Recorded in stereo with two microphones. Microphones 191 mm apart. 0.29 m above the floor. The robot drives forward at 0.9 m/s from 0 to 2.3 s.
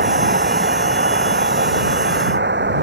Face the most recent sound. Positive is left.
turn(degrees=-85)